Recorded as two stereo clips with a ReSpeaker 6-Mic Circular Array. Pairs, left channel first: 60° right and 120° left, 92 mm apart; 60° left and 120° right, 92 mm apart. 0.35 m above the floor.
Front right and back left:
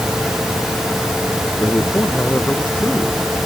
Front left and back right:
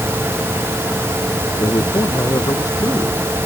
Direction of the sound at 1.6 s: 10° left.